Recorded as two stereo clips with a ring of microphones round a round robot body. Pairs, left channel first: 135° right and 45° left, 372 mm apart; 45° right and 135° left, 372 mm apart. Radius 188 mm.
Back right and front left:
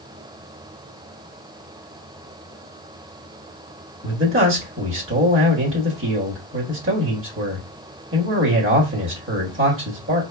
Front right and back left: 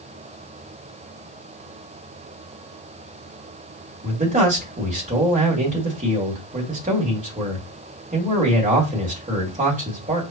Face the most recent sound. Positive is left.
turn(degrees=80)